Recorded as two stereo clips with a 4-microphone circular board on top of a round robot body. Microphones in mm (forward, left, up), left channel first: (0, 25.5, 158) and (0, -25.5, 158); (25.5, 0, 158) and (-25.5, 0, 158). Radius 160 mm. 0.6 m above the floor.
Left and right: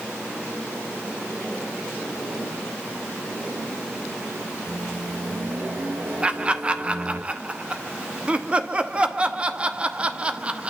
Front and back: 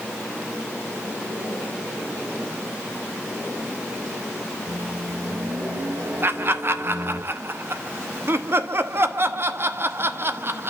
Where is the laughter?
155° right, 1.2 m.